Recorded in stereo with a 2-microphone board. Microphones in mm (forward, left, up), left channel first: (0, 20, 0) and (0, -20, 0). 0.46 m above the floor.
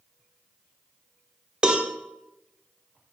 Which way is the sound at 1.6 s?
15° right (ahead or behind).